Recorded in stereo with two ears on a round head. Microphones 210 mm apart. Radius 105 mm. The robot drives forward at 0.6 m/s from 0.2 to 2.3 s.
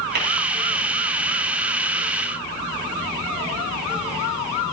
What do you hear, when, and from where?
0.1 s tapping: 45° right (ahead or behind), 4.5 m; by 0.3 s 50° right (ahead or behind), 4.5 m